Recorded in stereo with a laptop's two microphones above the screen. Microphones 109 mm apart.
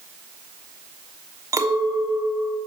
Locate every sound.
1.5 s a clink: 30° right (ahead or behind), 1.0 m